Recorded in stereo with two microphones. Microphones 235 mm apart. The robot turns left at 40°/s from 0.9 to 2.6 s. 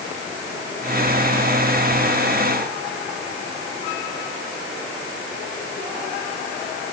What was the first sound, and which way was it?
Only background noise.